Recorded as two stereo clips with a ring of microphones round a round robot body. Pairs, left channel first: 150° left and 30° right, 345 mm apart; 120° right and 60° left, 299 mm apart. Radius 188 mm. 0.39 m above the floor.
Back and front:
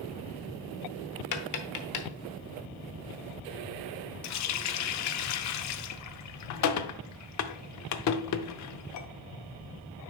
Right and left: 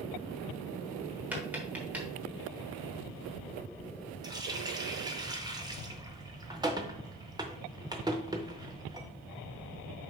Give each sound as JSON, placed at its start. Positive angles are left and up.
{"t": 1.3, "sound": "tapping", "azimuth_deg": 145, "distance_m": 1.0}
{"t": 4.2, "sound": "a running tap", "azimuth_deg": 135, "distance_m": 0.6}